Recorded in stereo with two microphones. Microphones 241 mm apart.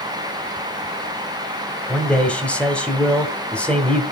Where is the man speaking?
5° left (ahead or behind), 1.7 m.